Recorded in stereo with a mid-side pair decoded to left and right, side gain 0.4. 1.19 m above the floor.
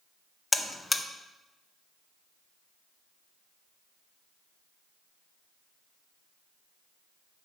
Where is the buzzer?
20° left, 0.7 m.